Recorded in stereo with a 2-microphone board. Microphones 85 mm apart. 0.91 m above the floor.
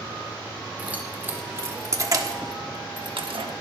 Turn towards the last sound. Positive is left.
turn(degrees=-85)